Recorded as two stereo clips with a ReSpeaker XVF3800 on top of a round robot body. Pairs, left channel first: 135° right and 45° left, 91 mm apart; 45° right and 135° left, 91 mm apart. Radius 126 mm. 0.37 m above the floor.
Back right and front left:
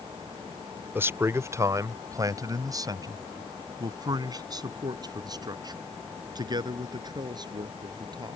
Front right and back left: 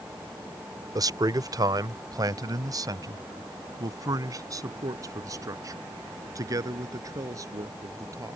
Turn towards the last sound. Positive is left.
turn(degrees=85)